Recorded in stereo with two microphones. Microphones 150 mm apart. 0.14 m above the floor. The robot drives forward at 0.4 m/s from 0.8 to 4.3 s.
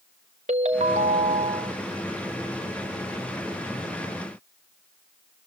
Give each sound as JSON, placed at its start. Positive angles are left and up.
{"t": 0.5, "sound": "a ringtone", "side_deg": -50, "distance_m": 0.9}